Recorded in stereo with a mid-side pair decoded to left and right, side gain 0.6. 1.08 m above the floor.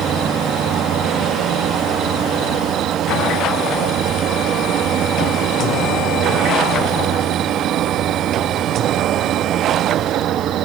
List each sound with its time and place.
0.0 s an insect: 55° right, 1.2 m